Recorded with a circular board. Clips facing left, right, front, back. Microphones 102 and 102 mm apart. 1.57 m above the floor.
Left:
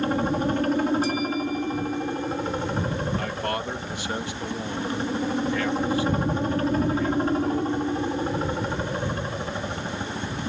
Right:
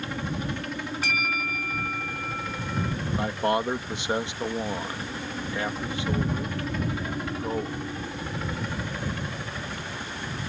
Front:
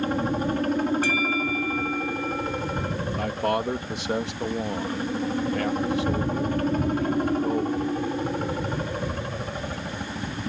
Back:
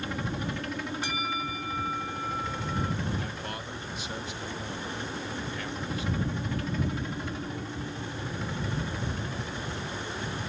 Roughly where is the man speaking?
Ahead.